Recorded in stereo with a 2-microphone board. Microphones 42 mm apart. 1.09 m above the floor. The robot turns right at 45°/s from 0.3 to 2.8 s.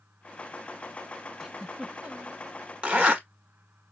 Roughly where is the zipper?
Right.